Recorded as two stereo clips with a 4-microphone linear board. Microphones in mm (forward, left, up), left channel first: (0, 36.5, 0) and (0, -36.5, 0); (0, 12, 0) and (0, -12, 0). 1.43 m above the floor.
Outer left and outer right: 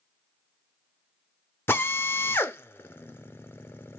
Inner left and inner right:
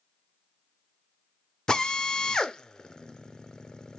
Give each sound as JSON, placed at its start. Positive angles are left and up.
{"t": 1.7, "sound": "a drill", "side_deg": 35, "distance_m": 0.6}